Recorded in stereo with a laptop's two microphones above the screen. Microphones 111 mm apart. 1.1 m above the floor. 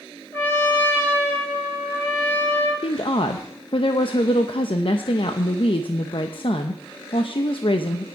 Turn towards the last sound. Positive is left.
turn(degrees=55)  # may be behind; listen again after turning